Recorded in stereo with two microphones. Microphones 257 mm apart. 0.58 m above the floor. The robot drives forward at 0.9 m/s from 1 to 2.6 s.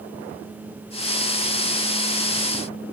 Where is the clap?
No clap in this recording.